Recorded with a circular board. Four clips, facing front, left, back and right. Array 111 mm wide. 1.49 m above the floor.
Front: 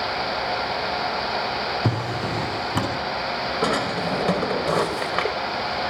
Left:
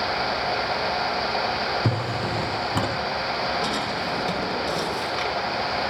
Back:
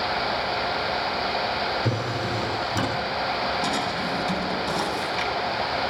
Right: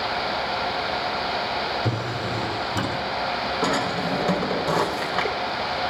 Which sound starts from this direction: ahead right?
A drawer, at 3.6 s.